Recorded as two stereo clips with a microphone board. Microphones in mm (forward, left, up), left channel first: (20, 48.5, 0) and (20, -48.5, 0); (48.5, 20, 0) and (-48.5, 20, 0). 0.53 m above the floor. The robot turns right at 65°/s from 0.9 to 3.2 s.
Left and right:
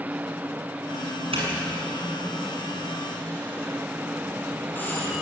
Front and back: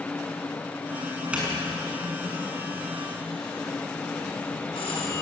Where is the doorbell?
105° right, 7 m; by 5.2 s 20° left, 7 m.